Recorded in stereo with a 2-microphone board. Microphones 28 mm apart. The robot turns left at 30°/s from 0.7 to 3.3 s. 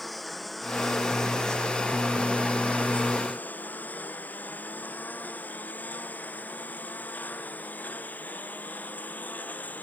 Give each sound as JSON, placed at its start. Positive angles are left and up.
{"t": 0.0, "sound": "a lawn mower", "side_deg": 5}